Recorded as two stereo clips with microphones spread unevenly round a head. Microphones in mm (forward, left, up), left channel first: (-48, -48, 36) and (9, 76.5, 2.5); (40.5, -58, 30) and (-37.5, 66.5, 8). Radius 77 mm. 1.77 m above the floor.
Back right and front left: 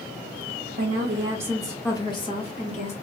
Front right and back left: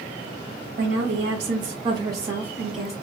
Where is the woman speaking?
95° left, 0.8 m; by 2.9 s 150° right, 1.5 m.